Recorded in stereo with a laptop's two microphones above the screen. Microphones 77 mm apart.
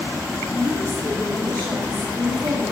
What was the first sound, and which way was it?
A woman speaking, 65° right (ahead or behind).